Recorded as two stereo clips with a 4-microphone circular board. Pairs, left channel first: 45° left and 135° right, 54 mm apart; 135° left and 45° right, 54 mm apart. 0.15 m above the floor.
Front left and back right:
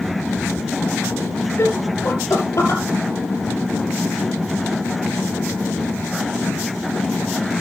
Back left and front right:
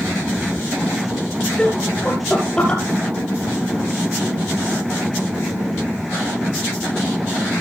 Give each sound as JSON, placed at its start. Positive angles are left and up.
{"t": 1.6, "sound": "laughter", "azimuth_deg": 60, "distance_m": 2.5}